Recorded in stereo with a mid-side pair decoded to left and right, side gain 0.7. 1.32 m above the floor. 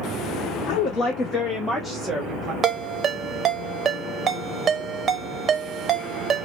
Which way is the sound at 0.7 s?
65° left.